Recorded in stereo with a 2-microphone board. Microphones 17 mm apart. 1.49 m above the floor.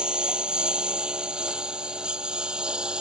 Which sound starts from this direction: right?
A lawn mower, at 0.0 s.